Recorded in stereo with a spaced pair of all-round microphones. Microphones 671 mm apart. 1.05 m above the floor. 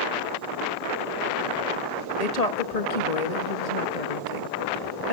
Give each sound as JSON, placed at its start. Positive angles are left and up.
{"t": 2.2, "sound": "a woman speaking", "side_deg": 70, "distance_m": 1.8}